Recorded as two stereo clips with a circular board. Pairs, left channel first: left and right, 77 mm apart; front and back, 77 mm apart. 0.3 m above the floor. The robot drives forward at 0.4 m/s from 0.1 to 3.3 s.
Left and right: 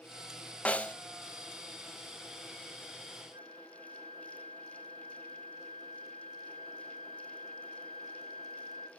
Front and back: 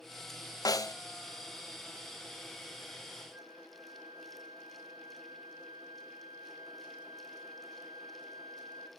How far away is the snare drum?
About 0.6 m.